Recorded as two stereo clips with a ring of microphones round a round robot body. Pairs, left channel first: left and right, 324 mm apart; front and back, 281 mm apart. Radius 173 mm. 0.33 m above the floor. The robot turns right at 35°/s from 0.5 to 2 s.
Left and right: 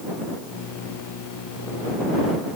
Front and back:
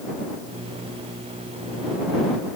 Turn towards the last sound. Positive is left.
No sound to turn to.